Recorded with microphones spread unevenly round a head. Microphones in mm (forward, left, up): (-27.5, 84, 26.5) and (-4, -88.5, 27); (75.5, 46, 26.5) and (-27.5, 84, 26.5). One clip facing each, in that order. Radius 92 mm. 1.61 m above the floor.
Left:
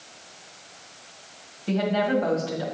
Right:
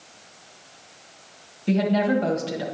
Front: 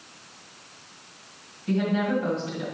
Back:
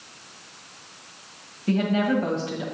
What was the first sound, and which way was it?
A woman speaking, 140° right.